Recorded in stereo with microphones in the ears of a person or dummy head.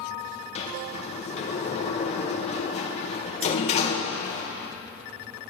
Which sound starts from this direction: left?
A sliding door, at 0.6 s.